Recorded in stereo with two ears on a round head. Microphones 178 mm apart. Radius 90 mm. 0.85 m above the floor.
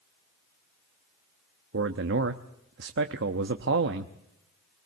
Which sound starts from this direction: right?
A man speaking, at 1.7 s.